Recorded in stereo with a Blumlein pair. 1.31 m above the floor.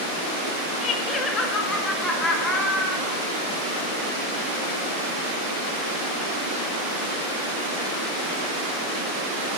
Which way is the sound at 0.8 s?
30° left.